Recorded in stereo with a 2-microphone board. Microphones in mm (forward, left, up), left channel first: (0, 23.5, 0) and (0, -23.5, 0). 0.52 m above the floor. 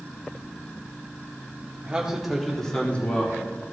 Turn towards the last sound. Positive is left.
turn(degrees=40)  # may be behind; listen again after turning